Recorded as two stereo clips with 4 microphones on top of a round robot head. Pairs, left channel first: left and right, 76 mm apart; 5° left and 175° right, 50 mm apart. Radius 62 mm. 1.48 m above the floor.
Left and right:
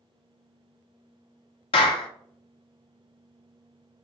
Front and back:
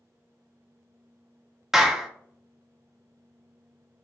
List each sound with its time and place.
1.7 s a clap: 100° left, 0.6 m